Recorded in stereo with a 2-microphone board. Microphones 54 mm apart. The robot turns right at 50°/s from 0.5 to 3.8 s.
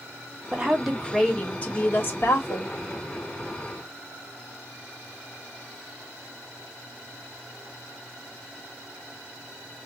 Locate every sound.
0.5 s a woman speaking: 25° right, 1.5 m; by 2.7 s 85° left, 1.5 m